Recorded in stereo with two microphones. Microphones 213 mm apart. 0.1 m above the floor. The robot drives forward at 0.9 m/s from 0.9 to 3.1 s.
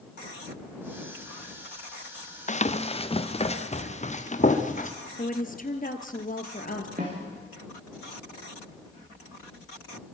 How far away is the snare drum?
About 6 m.